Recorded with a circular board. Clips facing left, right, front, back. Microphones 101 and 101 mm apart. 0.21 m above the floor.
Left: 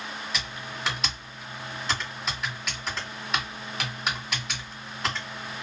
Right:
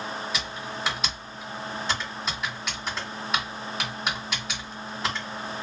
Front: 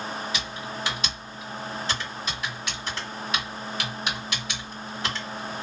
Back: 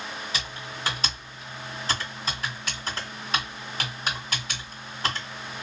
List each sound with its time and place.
0.3 s typing on a keyboard: straight behind, 1.8 m